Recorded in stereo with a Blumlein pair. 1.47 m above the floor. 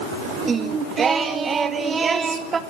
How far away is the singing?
About 1.7 m.